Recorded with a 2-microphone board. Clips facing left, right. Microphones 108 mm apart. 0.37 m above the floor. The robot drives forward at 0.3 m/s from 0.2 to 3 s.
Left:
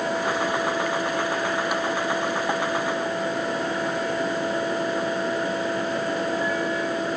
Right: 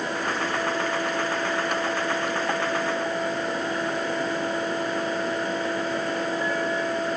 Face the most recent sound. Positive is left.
No sound to turn to.